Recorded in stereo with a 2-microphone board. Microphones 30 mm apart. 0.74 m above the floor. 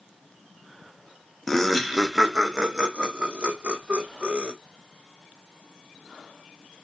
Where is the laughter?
10° left (ahead or behind), 0.7 m; by 4.5 s 45° right (ahead or behind), 2.0 m.